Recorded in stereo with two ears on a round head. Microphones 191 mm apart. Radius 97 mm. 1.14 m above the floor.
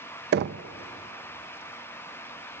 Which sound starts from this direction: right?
Knocking, at 0.3 s.